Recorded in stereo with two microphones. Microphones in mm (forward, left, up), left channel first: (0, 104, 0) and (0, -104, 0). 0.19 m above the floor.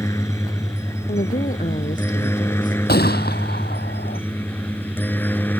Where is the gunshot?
50° left (ahead or behind).